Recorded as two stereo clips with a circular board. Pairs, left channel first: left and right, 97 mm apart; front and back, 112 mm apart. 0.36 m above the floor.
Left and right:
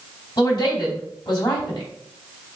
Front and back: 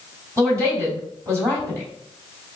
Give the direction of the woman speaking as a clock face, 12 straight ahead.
8 o'clock.